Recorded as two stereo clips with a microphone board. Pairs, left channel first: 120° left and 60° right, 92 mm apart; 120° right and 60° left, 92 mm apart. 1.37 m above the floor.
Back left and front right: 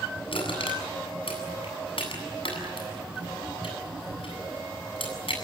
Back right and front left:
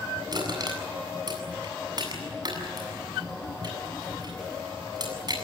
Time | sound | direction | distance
0.3 | crushing | 100° left | 7.5 m